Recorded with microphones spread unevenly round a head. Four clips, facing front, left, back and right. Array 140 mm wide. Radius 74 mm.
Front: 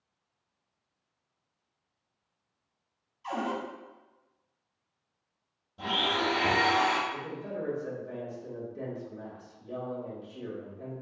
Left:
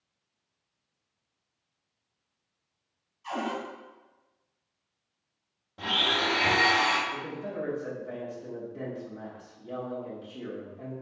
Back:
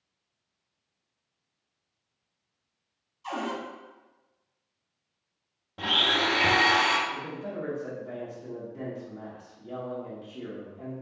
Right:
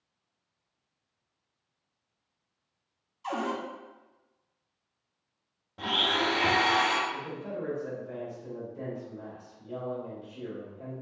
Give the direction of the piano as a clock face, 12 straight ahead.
I don't hear a piano.